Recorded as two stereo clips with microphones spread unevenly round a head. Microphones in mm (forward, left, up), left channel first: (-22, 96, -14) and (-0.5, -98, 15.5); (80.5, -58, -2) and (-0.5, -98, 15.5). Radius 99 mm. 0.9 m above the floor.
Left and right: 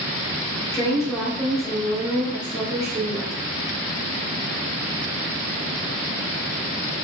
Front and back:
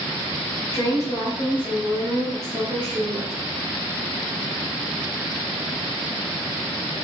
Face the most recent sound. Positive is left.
turn(degrees=-140)